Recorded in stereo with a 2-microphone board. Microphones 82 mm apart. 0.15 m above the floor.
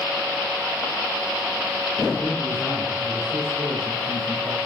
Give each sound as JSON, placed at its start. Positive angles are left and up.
{"t": 2.2, "sound": "a man speaking", "side_deg": -35, "distance_m": 4.5}